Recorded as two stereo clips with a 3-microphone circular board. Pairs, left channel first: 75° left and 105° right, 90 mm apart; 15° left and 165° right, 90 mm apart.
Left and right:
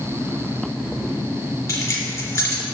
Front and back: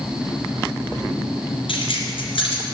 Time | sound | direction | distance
1.7 | keys jangling | 20° left | 3 m